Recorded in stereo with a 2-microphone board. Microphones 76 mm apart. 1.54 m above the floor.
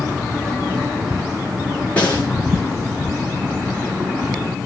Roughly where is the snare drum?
Left.